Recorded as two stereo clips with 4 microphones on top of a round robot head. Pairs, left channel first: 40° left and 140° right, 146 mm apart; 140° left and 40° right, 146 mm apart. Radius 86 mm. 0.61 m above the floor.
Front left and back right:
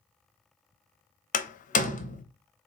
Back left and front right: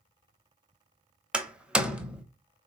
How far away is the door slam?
About 0.7 m.